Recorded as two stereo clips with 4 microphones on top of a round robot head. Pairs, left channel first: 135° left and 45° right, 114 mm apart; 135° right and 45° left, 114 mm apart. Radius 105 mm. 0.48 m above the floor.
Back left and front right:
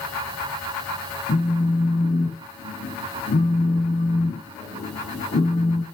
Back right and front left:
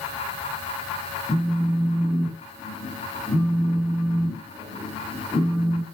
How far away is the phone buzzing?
About 2 m.